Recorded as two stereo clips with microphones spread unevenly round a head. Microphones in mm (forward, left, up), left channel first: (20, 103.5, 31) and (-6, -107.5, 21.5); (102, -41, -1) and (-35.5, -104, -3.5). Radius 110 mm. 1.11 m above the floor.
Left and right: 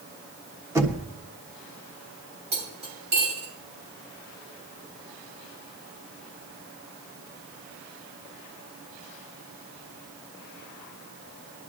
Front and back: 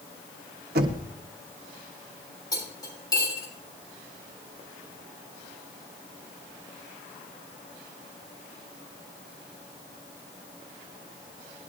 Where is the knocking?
170° right, 1.3 m.